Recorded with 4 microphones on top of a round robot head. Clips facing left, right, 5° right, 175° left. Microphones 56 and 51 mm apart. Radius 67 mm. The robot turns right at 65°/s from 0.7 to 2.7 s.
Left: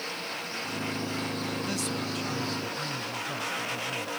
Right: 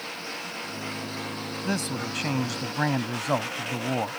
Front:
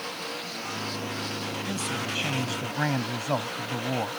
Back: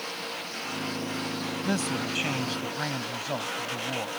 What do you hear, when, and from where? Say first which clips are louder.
1.6 s a man speaking: right 2 dB, back 4 dB; 145° right; by 4.2 s 75° right